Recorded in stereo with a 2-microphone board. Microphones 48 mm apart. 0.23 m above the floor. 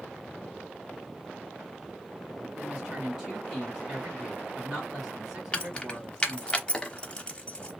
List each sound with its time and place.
2.6 s a woman speaking: 10° right (ahead or behind), 2 m
5.5 s keys jangling: 20° left (ahead or behind), 0.7 m